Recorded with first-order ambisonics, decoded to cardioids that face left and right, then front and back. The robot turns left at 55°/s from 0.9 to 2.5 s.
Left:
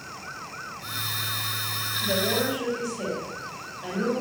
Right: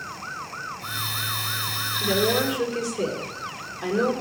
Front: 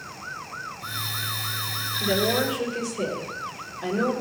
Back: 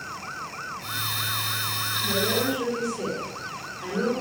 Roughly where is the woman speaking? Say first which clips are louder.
Right 3 dB, front 3 dB; ahead right.